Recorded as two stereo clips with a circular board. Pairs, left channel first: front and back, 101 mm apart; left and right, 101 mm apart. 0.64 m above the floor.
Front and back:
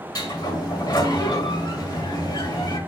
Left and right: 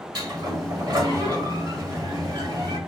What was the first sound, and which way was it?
A sliding door, 45° right.